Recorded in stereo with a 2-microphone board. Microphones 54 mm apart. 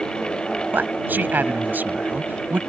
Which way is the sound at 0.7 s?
35° right (ahead or behind).